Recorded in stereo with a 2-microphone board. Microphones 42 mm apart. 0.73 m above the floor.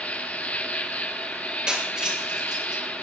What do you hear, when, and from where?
0.0 s an insect: 35° left (ahead or behind), 1.4 m
1.7 s breaking glass: 20° right (ahead or behind), 5 m